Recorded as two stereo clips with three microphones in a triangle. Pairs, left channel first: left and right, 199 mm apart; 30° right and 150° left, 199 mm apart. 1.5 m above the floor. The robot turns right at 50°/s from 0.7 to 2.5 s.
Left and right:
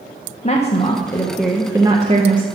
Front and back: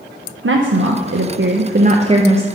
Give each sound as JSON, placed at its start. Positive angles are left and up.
{"t": 0.4, "sound": "a woman speaking", "azimuth_deg": 145, "distance_m": 0.5}